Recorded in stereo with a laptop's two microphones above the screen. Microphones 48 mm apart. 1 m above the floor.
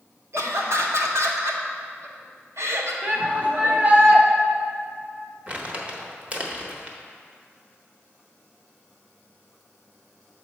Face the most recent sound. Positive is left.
turn(degrees=-25)  # may be behind; listen again after turning